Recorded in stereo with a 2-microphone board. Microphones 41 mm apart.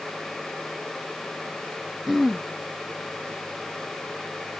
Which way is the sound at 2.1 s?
10° right (ahead or behind).